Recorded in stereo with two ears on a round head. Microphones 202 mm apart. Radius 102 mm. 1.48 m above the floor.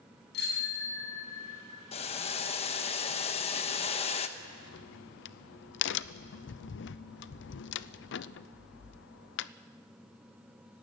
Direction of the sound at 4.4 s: 55° left (ahead or behind).